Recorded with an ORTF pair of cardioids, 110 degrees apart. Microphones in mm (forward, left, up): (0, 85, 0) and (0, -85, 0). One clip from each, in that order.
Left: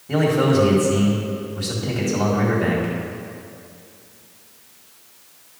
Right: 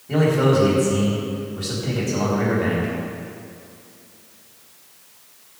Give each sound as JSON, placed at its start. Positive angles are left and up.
{"t": 0.1, "sound": "a man speaking", "azimuth_deg": 15, "distance_m": 4.0}